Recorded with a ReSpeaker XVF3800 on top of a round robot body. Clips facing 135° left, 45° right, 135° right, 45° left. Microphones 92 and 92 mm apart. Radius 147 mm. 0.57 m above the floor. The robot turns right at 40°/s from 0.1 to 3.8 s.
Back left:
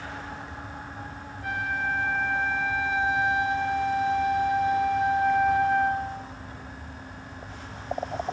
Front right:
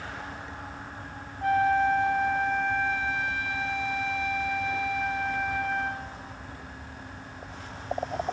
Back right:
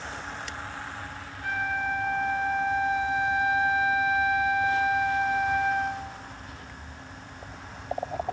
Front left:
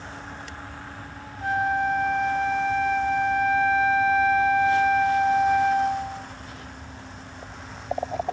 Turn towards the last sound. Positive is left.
turn(degrees=95)